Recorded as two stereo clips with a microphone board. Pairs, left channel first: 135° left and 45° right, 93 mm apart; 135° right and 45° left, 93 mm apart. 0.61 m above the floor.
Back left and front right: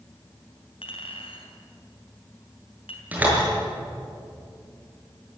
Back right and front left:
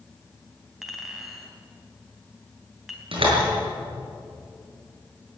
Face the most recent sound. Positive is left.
turn(degrees=30)